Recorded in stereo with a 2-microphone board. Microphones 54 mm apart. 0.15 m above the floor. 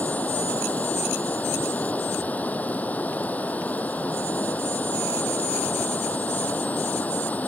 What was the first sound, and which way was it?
Running water, 30° left (ahead or behind).